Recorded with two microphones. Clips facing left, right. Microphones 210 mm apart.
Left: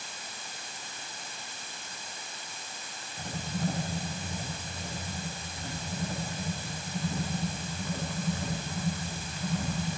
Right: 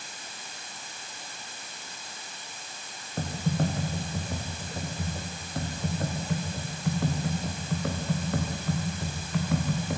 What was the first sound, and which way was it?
Typing on a keyboard, 70° right (ahead or behind).